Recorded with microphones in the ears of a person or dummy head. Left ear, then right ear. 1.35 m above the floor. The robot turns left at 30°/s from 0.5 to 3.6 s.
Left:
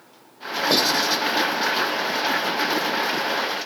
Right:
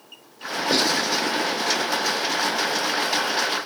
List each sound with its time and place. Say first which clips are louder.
0.7 s writing: left 1 dB; 60° left (ahead or behind), 3.5 m; by 1.2 s 45° left (ahead or behind), 3.5 m